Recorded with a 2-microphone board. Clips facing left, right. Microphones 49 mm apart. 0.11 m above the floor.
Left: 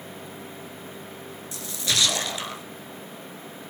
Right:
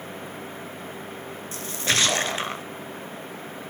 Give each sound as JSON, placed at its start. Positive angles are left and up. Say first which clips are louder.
{"t": 1.5, "sound": "a splash", "louder": "right 3 dB", "side_deg": -40, "distance_m": 0.8}